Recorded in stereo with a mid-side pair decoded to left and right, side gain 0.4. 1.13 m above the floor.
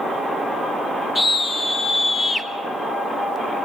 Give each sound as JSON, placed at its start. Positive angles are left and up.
{"t": 1.1, "sound": "a scream", "azimuth_deg": 25, "distance_m": 4.0}